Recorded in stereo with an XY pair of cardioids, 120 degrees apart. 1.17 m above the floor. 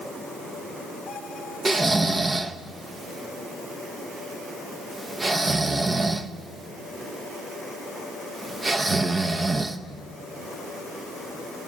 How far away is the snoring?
About 1.0 m.